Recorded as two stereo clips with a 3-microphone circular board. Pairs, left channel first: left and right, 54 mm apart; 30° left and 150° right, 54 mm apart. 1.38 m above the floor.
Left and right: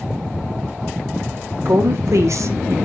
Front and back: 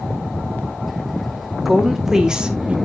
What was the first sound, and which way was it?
A woman speaking, 65° right.